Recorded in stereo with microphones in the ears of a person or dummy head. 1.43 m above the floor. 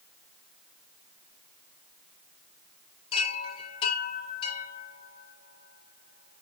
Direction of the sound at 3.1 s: 35° left (ahead or behind).